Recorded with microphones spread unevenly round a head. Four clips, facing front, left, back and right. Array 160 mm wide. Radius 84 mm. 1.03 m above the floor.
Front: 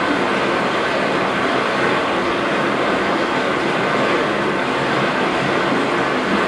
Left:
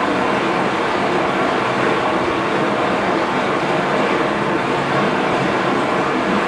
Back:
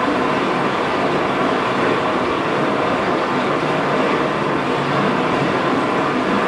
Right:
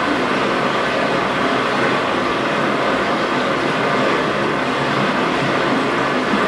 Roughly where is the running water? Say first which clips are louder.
Left 1 dB, even; behind left.